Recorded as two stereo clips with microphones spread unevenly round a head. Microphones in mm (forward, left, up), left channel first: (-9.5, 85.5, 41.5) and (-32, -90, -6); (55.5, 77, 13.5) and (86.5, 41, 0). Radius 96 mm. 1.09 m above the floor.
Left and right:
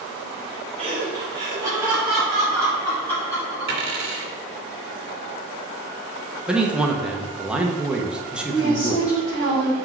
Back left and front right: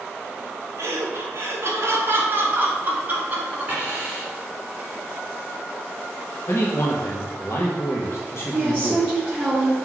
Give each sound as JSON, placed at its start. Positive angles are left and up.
{"t": 0.8, "sound": "laughter", "azimuth_deg": -35, "distance_m": 2.0}
{"t": 3.7, "sound": "a dropped coin", "azimuth_deg": -130, "distance_m": 1.7}
{"t": 6.5, "sound": "a man speaking", "azimuth_deg": -170, "distance_m": 1.0}
{"t": 8.5, "sound": "a woman speaking", "azimuth_deg": 15, "distance_m": 2.5}